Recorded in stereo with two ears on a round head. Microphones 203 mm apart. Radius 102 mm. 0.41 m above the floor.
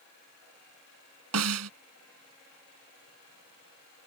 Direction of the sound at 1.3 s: 75° right (ahead or behind).